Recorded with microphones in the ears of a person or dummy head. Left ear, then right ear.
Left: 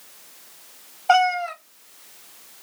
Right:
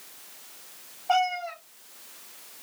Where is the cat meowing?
50° left (ahead or behind), 0.6 m.